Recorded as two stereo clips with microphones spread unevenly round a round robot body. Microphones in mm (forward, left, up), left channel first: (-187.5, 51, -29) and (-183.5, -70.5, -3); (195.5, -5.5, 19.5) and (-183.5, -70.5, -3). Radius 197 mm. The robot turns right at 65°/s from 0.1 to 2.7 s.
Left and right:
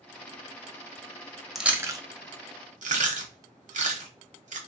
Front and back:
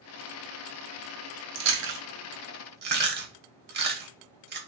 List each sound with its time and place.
1.6 s chewing: 175° left, 0.8 m; by 4.6 s 110° right, 0.8 m